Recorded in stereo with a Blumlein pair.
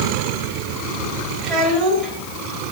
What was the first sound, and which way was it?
A child speaking, 20° right.